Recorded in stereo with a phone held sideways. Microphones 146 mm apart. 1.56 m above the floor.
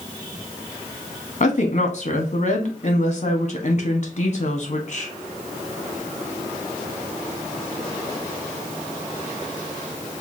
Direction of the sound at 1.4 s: 55° left (ahead or behind).